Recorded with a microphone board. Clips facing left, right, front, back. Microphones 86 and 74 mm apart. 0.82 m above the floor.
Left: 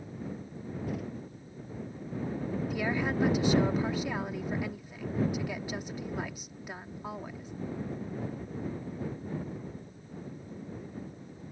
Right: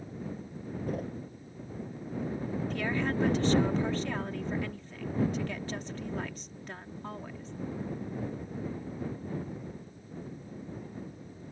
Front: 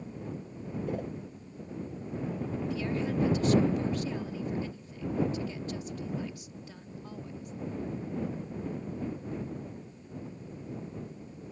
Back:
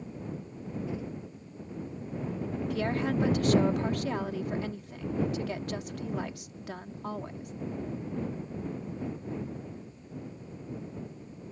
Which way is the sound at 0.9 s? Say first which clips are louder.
Right 2 dB, front 4 dB; 40° right.